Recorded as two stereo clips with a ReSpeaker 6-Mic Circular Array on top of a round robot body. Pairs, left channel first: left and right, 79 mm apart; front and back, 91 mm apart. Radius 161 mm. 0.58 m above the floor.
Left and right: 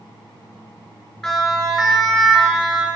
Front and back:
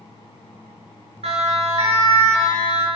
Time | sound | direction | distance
1.2 | a siren | 175° left | 8 m